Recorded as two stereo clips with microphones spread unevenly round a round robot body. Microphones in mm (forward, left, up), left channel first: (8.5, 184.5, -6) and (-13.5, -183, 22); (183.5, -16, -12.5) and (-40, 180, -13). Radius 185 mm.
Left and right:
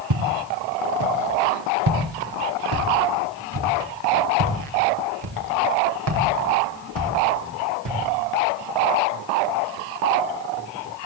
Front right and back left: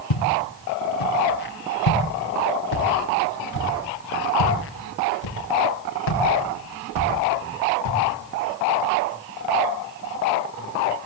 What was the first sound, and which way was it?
Footsteps, 55° right.